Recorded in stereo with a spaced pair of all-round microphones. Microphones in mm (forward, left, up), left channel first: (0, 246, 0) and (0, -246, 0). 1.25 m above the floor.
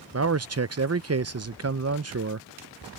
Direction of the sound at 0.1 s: 30° right (ahead or behind).